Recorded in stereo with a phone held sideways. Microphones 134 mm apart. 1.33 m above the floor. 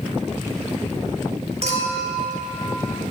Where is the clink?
50° right (ahead or behind), 3.5 m.